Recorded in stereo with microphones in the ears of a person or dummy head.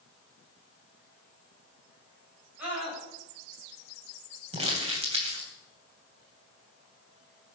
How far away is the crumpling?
About 3.5 m.